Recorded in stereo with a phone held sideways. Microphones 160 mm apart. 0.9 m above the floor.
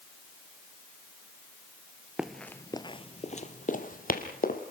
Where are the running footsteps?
5° right (ahead or behind), 0.9 m; by 4.6 s 65° left (ahead or behind), 2 m.